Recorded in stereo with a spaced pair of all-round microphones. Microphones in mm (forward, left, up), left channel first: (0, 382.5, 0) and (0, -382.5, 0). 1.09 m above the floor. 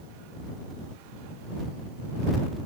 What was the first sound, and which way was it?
Only background noise.